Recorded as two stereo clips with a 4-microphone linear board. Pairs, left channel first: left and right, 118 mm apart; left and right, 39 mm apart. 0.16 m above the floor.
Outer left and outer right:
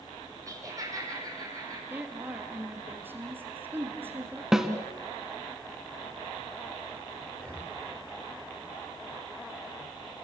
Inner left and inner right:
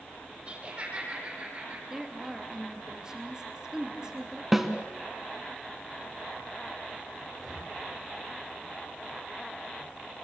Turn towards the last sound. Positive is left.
turn(degrees=10)  # may be behind; listen again after turning